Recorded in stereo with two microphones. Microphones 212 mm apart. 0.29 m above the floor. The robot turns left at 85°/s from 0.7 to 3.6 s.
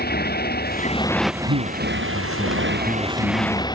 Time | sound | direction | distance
0.0 | a motorcycle | 50° left | ?
1.5 | a man speaking | 90° right | ?